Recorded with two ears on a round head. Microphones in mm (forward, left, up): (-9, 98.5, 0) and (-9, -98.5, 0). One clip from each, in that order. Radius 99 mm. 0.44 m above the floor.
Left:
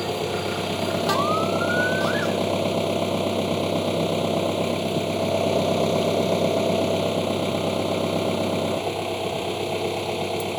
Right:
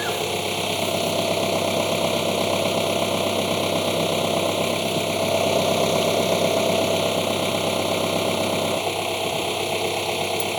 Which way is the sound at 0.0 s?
45° right (ahead or behind).